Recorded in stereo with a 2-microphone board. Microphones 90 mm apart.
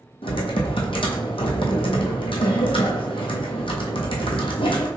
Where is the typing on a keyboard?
80° left, 0.9 m.